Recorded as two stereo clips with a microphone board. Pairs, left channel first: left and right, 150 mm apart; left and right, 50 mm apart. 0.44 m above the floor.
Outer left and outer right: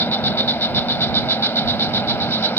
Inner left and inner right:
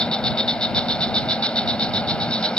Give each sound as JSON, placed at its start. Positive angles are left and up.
{"t": 0.0, "sound": "an insect", "side_deg": 15}